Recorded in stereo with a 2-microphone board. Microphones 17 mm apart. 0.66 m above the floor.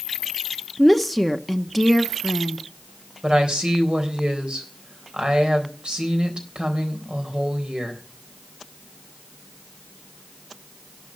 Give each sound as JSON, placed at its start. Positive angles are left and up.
{"t": 0.8, "sound": "a woman speaking", "side_deg": -5, "distance_m": 1.0}
{"t": 3.2, "sound": "a woman speaking", "side_deg": -75, "distance_m": 4.0}